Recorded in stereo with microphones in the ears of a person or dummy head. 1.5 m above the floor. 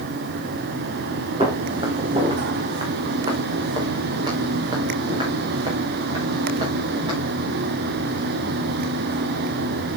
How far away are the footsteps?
About 4 m.